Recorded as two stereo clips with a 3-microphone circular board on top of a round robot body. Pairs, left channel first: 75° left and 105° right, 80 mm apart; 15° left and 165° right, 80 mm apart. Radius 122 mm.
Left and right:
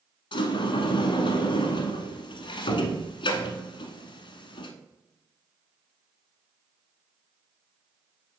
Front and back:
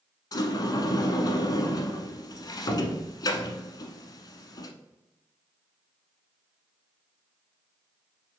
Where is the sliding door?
60° left, 0.8 m.